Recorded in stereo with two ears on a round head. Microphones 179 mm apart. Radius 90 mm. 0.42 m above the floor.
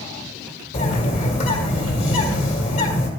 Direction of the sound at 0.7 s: 30° left (ahead or behind).